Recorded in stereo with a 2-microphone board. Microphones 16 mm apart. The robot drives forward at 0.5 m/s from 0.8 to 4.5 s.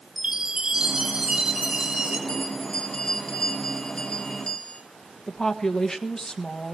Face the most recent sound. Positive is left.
turn(degrees=50)  # may be behind; listen again after turning